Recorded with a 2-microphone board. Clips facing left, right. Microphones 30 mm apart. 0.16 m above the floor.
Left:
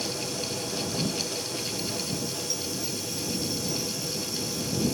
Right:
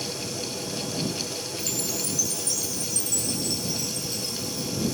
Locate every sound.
1.6 s a chime: 85° right